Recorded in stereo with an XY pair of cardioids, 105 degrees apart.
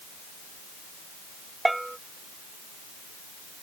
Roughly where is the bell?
Ahead.